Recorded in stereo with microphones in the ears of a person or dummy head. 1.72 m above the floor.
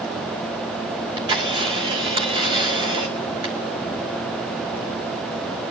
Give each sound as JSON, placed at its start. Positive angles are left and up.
{"t": 0.9, "sound": "a camera shutter", "side_deg": -30, "distance_m": 2.5}